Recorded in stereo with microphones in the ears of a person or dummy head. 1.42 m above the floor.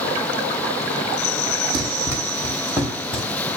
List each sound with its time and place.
1.7 s running footsteps: 20° right (ahead or behind), 2.5 m; by 3.5 s 5° right (ahead or behind), 3.5 m